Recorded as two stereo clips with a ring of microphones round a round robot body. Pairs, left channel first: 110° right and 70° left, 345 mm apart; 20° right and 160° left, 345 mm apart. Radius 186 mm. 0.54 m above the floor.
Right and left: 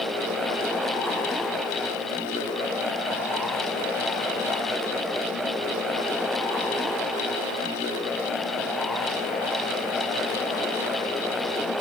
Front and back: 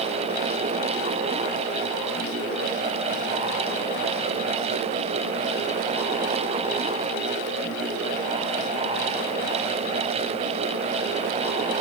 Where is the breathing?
I don't hear breathing.